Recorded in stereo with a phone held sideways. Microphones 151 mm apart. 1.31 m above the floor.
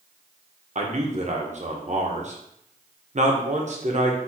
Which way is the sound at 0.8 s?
50° right (ahead or behind).